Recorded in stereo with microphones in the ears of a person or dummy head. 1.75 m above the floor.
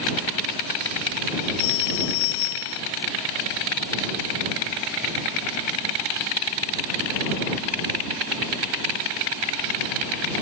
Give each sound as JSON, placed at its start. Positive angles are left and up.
{"t": 1.6, "sound": "a phone ringing", "side_deg": 70}